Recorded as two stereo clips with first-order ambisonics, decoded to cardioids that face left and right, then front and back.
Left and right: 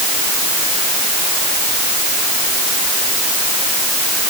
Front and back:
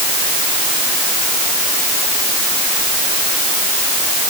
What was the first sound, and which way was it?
Only background noise.